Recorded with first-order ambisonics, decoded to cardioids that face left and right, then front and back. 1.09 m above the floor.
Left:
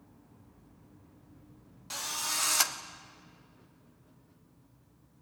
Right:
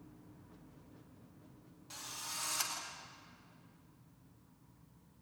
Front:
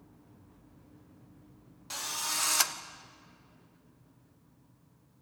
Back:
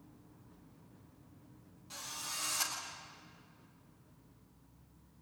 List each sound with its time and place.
1.9 s a drill: 40° left, 1.4 m